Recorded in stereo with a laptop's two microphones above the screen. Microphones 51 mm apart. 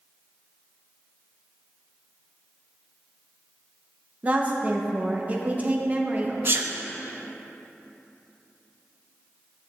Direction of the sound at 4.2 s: 30° right (ahead or behind).